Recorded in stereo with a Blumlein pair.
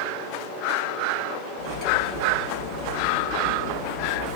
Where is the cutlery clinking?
35° left, 1.9 m.